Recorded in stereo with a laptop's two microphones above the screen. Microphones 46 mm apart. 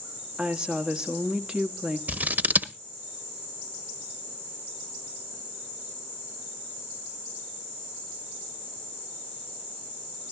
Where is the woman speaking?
20° right (ahead or behind), 1.6 m.